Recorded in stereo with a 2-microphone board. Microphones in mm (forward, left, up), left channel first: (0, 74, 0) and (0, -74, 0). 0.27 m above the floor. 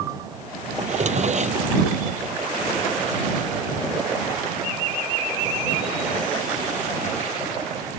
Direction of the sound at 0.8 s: 55° right (ahead or behind).